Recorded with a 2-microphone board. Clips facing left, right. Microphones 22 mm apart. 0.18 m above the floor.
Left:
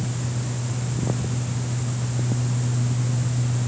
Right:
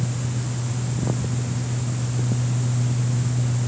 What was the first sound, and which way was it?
Only background noise.